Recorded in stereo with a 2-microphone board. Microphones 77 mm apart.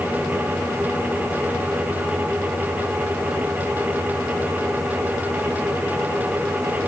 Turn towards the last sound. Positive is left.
No sound to turn to.